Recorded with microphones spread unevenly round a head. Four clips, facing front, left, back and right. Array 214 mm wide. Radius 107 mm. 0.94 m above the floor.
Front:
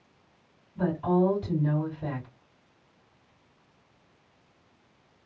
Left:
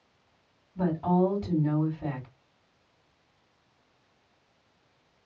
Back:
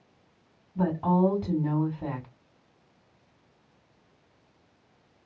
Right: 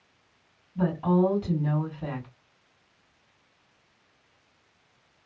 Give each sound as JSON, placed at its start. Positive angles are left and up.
{"t": 0.8, "sound": "a woman speaking", "azimuth_deg": 180, "distance_m": 2.5}